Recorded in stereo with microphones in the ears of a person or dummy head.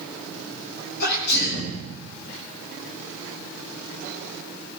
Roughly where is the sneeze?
Left.